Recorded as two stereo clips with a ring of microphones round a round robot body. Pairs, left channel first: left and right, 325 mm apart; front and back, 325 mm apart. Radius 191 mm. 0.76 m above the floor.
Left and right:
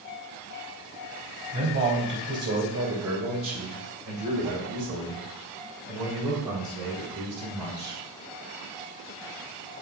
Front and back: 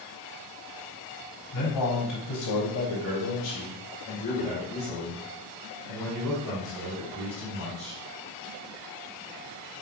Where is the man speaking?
35° right, 3.5 m; by 8.0 s 100° right, 4.5 m.